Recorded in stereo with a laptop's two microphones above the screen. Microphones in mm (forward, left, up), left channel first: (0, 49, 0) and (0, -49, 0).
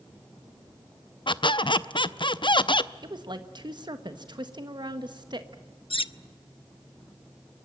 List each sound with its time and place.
1.3 s a squeak: 60° left (ahead or behind), 0.6 m
3.0 s a woman speaking: 55° right (ahead or behind), 1.4 m
5.9 s cutlery clinking: 70° left (ahead or behind), 0.5 m